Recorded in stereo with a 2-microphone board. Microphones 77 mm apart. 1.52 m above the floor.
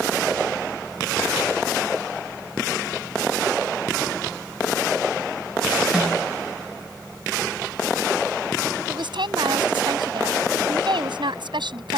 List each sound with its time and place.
5.9 s a snare drum: 10° right (ahead or behind)
8.9 s a woman speaking: 90° right